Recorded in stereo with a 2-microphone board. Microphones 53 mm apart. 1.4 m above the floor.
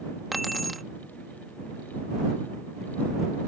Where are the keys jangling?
Centre (ahead or behind).